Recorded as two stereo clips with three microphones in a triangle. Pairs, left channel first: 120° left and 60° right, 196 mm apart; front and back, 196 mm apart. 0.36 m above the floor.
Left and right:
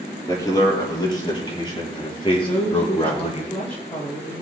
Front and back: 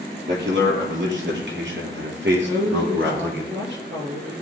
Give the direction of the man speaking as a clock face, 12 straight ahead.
6 o'clock.